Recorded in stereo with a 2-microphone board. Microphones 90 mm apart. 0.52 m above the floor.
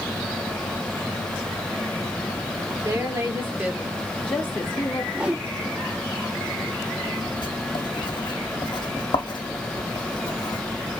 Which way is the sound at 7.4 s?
60° left (ahead or behind).